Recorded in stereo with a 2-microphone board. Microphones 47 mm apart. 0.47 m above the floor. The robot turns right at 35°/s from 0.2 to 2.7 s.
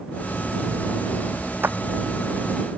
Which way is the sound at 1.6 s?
50° right (ahead or behind).